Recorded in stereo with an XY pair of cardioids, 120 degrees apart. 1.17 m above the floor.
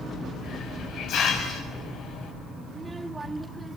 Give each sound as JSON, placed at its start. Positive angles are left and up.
{"t": 0.4, "sound": "a hiss", "azimuth_deg": 70, "distance_m": 6.0}
{"t": 2.7, "sound": "a child speaking", "azimuth_deg": -15, "distance_m": 1.6}